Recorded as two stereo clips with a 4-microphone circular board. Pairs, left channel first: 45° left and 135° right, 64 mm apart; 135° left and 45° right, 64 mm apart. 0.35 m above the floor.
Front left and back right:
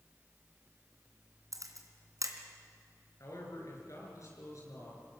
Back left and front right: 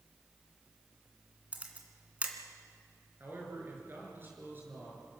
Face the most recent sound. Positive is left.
turn(degrees=10)